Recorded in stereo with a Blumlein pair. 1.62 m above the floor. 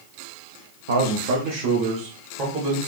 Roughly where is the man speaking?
Ahead right.